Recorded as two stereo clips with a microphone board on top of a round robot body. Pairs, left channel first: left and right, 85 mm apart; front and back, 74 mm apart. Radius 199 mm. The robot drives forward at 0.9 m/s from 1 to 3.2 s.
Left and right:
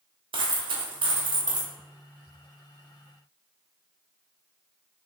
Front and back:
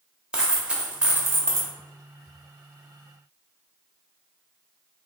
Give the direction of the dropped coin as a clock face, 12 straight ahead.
3 o'clock.